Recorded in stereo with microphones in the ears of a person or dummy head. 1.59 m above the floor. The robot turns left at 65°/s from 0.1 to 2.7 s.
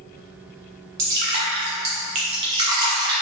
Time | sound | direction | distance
1.0 | dripping | 20° right (ahead or behind) | 0.6 m